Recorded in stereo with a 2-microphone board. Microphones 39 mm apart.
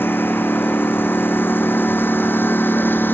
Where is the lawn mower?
70° left (ahead or behind); by 3.1 s 65° left (ahead or behind).